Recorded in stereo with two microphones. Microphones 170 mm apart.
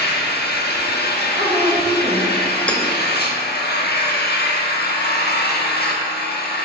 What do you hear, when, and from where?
0.0 s an engine running: 85° left, 0.9 m
1.4 s a woman speaking: 45° right (ahead or behind), 2 m
2.7 s hammering: 5° left (ahead or behind), 0.8 m